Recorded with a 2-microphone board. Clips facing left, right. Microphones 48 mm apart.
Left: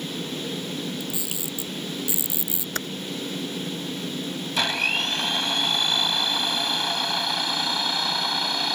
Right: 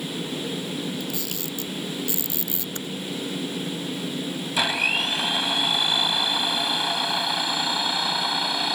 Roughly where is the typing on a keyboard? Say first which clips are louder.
Left 6 dB; left.